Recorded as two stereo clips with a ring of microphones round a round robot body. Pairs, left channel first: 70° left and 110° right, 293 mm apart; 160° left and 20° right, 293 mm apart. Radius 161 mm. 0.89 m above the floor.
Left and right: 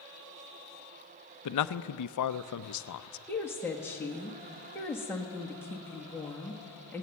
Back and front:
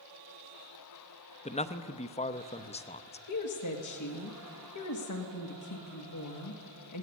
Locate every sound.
1.4 s a man speaking: 90° left, 0.7 m
3.3 s a woman speaking: 150° left, 1.7 m